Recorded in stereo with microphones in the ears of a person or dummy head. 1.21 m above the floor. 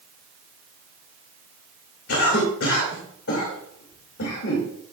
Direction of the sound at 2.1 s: 75° left (ahead or behind).